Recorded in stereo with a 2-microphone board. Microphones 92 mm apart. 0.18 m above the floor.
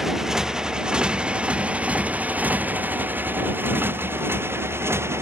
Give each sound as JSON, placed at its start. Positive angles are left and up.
{"t": 0.0, "sound": "a motorcycle", "side_deg": -5}